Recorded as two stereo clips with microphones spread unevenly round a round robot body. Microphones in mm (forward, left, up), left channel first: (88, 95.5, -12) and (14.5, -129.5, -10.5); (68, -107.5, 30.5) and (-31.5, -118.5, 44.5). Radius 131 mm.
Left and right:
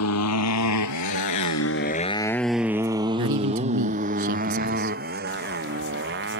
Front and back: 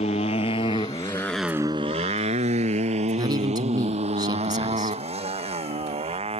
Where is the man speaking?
130° right.